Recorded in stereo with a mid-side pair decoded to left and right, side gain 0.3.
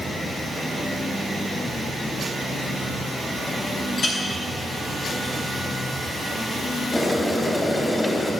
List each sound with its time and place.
4.0 s a clink: 65° left, 3 m
6.9 s boiling: 20° left, 3 m